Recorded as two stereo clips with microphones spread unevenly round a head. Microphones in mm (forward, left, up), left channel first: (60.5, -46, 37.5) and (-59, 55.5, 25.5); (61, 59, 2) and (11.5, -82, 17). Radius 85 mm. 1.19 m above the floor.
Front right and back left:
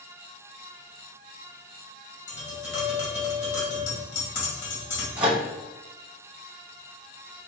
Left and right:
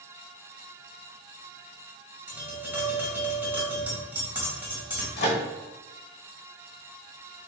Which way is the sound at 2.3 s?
35° right.